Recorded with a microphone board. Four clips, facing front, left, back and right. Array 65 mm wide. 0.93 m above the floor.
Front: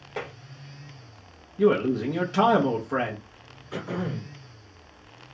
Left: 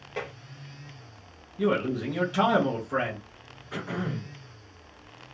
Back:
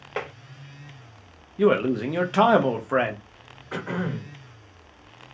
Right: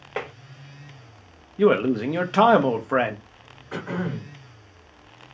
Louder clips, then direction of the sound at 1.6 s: Right 7 dB, back 1 dB; 115° right.